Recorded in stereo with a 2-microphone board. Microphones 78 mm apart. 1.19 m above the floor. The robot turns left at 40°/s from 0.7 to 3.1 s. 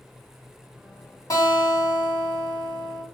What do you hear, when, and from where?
1.3 s a guitar: 130° left, 1.8 m; by 3.0 s 65° left, 1.8 m